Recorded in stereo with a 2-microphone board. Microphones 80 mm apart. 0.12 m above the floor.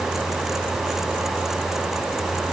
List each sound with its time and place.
Only background noise.